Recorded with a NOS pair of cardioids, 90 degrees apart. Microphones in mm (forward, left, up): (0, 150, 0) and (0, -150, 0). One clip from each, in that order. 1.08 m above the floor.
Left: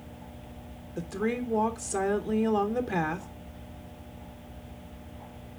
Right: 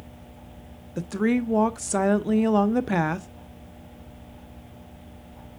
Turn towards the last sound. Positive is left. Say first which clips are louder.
# right 5 dB
turn(degrees=-30)